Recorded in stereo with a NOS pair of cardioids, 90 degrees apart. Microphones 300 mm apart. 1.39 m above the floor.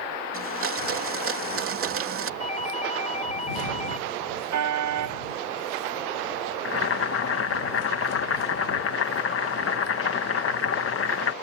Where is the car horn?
65° right.